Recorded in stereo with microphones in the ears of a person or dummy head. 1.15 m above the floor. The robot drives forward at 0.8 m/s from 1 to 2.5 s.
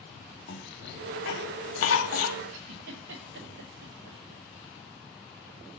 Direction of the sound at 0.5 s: 65° left (ahead or behind).